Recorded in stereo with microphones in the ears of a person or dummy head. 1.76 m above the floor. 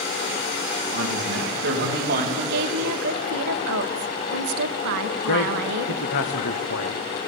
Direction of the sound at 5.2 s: 70° left (ahead or behind).